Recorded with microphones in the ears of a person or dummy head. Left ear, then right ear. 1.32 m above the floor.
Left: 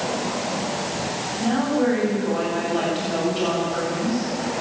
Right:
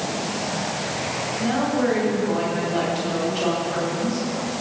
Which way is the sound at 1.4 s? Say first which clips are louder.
Left 1 dB; 5° right (ahead or behind).